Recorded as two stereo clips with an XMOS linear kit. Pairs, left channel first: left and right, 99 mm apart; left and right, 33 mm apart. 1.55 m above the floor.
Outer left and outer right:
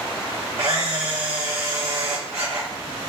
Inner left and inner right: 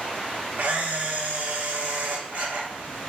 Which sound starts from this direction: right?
A camera shutter, at 0.6 s.